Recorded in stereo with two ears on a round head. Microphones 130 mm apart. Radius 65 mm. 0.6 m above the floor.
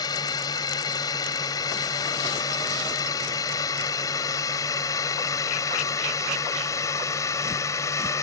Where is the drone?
25° left (ahead or behind); by 8.2 s 20° left (ahead or behind).